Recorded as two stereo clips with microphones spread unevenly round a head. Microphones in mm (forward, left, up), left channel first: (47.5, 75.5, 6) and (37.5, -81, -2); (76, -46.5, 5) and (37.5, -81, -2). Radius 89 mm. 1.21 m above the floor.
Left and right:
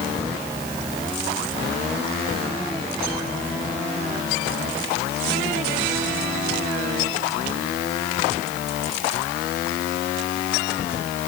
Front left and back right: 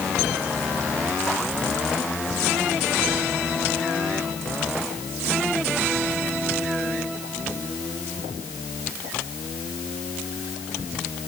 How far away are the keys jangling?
No keys jangling in this recording.